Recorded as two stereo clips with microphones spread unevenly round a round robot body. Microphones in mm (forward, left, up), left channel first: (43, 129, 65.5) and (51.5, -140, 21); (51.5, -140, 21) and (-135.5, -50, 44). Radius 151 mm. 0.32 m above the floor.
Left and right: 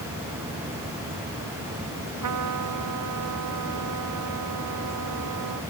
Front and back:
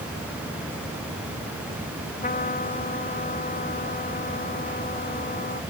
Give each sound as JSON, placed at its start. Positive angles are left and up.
{"t": 2.2, "sound": "a trumpet", "azimuth_deg": -75}